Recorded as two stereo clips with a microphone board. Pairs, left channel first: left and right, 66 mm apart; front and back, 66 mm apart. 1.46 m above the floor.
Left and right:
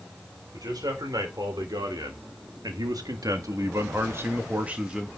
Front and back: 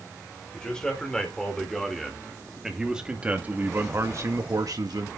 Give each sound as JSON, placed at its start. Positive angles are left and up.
{"t": 0.5, "sound": "a man speaking", "azimuth_deg": -80, "distance_m": 4.5}